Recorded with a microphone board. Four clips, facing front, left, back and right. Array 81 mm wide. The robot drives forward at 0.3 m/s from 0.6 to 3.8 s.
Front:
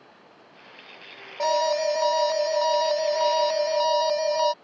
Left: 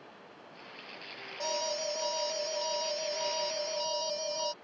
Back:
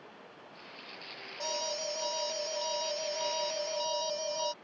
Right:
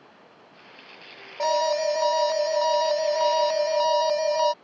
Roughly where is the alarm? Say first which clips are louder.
Right 12 dB, front 15 dB; ahead right.